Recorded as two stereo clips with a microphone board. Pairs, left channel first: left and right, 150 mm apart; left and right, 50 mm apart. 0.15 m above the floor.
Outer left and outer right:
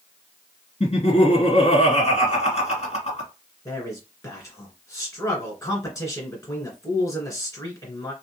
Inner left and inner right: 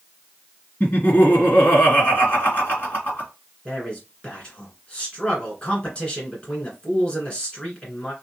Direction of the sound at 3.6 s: 25° left (ahead or behind).